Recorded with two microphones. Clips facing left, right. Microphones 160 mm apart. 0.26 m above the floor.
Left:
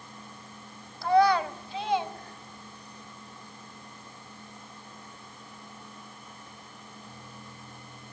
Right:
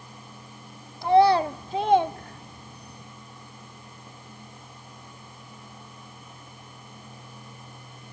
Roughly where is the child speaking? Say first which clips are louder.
Right 4 dB; centre.